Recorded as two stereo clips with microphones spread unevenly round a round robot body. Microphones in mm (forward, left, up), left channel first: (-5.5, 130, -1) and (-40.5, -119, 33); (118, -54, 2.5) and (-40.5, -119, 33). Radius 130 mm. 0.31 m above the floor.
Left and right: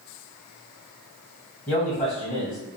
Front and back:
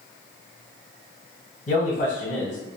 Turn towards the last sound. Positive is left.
turn(degrees=5)